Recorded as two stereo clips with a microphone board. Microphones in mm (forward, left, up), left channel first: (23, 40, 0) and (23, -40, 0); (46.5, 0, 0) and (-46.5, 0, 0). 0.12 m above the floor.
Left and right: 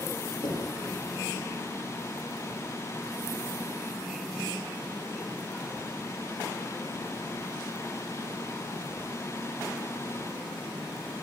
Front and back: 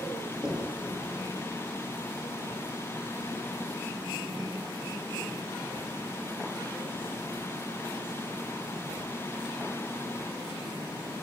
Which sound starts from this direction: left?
Knocking, at 0.4 s.